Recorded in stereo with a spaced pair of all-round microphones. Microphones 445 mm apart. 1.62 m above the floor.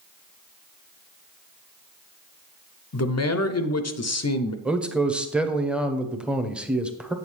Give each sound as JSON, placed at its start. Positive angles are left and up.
{"t": 2.9, "sound": "a man speaking", "side_deg": 35, "distance_m": 0.5}
{"t": 4.7, "sound": "a man speaking", "side_deg": 0, "distance_m": 0.8}